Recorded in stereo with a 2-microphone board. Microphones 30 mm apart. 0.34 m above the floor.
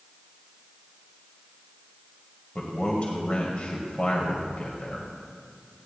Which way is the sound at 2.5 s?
45° left (ahead or behind).